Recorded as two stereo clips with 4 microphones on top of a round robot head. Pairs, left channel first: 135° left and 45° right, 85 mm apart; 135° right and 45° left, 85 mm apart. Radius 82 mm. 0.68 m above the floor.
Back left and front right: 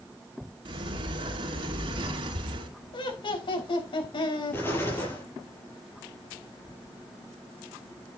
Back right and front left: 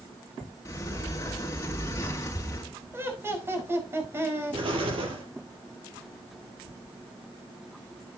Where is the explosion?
70° left, 5.5 m.